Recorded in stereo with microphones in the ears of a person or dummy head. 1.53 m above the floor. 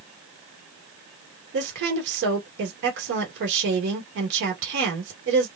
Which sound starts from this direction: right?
A woman speaking, at 1.5 s.